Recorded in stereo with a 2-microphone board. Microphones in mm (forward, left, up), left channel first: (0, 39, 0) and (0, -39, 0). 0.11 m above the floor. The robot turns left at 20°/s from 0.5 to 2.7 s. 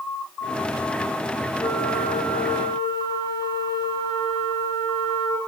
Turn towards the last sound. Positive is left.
turn(degrees=80)